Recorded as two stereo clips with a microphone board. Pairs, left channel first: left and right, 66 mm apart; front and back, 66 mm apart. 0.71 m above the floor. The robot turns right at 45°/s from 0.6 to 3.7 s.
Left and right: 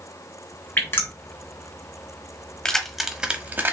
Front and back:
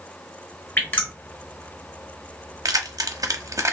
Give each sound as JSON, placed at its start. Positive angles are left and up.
{"t": 0.8, "sound": "dripping", "azimuth_deg": 40, "distance_m": 1.1}
{"t": 2.6, "sound": "keys jangling", "azimuth_deg": 165, "distance_m": 0.7}